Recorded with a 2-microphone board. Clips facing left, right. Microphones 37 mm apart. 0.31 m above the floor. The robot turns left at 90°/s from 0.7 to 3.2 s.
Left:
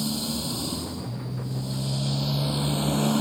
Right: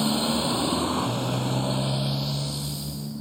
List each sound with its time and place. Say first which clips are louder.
0.0 s a motorcycle: right 5 dB; 40° right; by 3.2 s 95° left